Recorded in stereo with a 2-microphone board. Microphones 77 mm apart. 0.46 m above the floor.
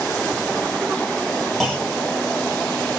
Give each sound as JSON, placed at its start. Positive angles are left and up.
{"t": 1.6, "sound": "a clunk", "side_deg": 5, "distance_m": 2.5}